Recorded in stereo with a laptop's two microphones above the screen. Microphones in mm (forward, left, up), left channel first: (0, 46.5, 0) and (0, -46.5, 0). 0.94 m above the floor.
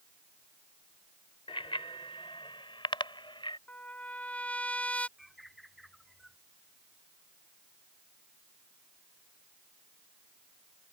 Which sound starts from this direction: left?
A bicycle bell, at 1.5 s.